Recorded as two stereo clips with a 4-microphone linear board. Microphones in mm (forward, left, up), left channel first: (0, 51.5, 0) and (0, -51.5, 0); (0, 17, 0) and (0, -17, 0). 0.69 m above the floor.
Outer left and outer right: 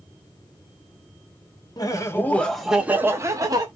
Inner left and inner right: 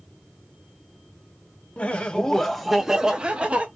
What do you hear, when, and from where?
1.8 s laughter: 40° left (ahead or behind), 0.8 m; by 3.7 s 40° right (ahead or behind), 1.0 m